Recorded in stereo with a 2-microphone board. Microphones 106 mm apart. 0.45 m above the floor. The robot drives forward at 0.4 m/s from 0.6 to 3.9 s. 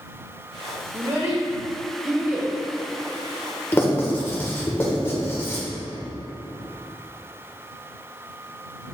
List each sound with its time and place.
0.9 s a child speaking: 50° right (ahead or behind), 1.0 m; by 2.5 s 35° right (ahead or behind), 1.2 m
3.7 s writing: 20° left (ahead or behind), 1.3 m; by 5.7 s 25° left (ahead or behind), 1.3 m